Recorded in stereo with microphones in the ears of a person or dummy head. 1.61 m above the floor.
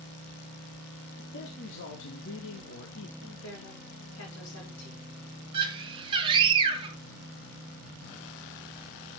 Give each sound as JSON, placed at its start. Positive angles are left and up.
{"t": 1.2, "sound": "a man speaking", "side_deg": 65, "distance_m": 2.5}
{"t": 3.2, "sound": "a woman speaking", "side_deg": 80, "distance_m": 6.0}
{"t": 5.5, "sound": "a scream", "side_deg": -25, "distance_m": 2.5}